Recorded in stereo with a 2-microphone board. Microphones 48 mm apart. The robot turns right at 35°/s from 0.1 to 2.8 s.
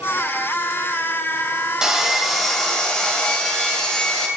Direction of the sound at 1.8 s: 15° right.